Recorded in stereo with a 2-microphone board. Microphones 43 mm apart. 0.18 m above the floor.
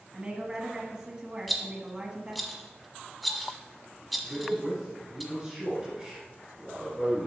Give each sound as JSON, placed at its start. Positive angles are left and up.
{"t": 0.1, "sound": "a woman speaking", "side_deg": -25, "distance_m": 1.1}
{"t": 1.5, "sound": "a rattle", "side_deg": 0, "distance_m": 1.1}
{"t": 4.2, "sound": "a man speaking", "side_deg": -20, "distance_m": 2.5}